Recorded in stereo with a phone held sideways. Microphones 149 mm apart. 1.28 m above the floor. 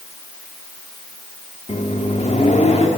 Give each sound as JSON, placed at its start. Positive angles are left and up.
{"t": 1.7, "sound": "a microwave", "side_deg": 50, "distance_m": 2.5}